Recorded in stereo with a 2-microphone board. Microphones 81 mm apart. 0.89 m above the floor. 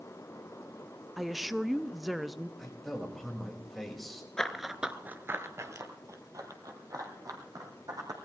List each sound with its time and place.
1.2 s a woman speaking: centre (ahead or behind), 0.6 m
2.6 s a man speaking: 5° left (ahead or behind), 3.5 m
4.4 s running footsteps: 5° left (ahead or behind), 0.8 m; by 8.2 s 50° right (ahead or behind), 3 m